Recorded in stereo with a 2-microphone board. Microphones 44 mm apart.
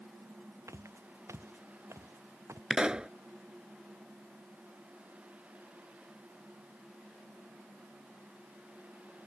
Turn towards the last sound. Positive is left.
turn(degrees=-15)  # may be behind; listen again after turning